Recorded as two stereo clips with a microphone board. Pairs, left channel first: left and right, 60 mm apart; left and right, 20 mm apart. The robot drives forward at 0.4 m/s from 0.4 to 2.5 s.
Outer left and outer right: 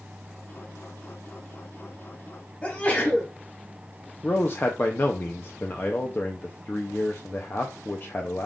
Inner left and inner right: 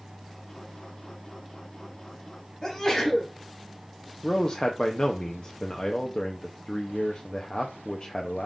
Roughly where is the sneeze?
Left.